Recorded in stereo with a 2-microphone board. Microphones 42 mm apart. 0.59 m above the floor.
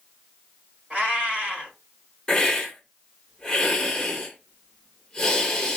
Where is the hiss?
15° left (ahead or behind), 1.6 m.